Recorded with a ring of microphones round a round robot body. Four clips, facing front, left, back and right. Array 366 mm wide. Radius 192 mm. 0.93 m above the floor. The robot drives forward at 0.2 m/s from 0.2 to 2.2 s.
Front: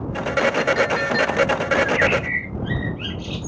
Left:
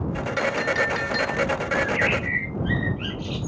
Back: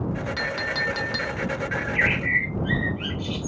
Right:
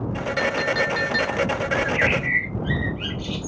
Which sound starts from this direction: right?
A bird, at 1.7 s.